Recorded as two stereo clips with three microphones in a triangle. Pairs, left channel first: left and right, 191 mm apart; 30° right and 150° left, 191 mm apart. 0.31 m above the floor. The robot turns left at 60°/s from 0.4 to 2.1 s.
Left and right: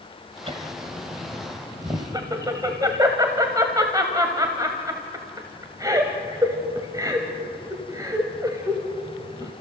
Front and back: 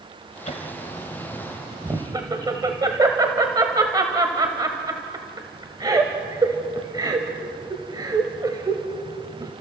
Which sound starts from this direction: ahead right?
Laughter, at 0.5 s.